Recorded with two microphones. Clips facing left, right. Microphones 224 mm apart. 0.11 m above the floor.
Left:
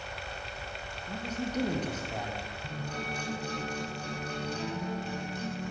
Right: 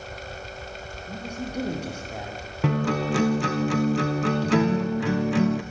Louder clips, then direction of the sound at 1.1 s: Right 1 dB; 10° right (ahead or behind).